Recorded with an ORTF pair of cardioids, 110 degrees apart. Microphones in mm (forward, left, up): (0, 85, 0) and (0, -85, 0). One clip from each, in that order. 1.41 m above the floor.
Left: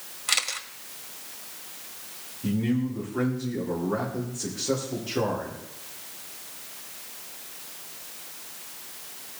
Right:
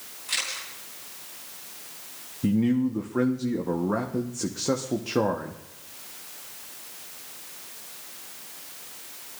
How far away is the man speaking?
About 1.2 m.